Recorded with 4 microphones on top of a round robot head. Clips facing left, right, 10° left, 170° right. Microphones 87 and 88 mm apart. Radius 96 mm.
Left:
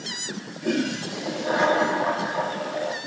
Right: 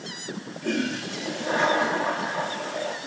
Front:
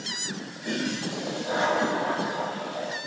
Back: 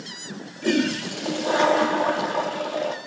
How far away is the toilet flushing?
About 2 m.